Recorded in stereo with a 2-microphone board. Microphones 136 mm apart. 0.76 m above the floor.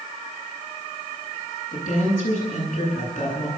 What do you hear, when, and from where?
1.7 s a woman speaking: 75° left (ahead or behind), 10 m